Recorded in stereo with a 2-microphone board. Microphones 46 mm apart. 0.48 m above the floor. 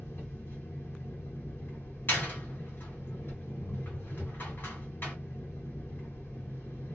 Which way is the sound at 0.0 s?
55° left (ahead or behind).